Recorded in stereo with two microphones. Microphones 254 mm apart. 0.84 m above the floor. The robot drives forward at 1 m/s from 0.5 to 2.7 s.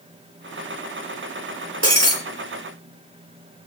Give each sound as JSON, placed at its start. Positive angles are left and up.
{"t": 1.8, "sound": "breaking glass", "side_deg": -70, "distance_m": 5.0}